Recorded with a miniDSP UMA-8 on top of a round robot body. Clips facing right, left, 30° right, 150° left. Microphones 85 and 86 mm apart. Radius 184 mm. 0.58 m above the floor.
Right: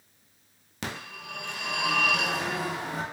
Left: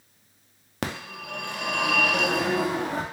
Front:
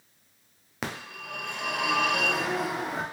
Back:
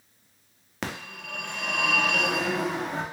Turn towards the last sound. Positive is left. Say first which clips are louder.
# left 5 dB, back 1 dB
turn(degrees=55)